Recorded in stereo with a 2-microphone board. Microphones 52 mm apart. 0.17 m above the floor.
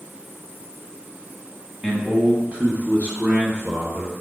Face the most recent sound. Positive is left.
turn(degrees=-45)  # may be behind; listen again after turning